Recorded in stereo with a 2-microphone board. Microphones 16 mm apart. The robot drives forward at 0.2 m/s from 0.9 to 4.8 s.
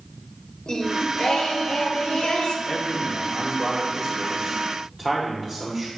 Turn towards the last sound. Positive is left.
turn(degrees=15)  # may be behind; listen again after turning